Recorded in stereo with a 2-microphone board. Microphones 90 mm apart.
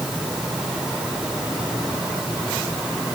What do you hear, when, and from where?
Only background noise.